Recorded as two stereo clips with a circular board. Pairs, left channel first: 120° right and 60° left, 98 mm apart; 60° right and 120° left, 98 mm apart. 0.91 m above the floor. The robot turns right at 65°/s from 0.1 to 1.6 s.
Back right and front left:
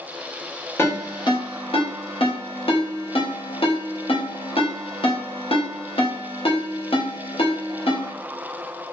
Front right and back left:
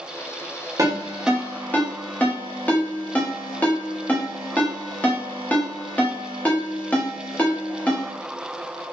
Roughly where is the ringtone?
Behind.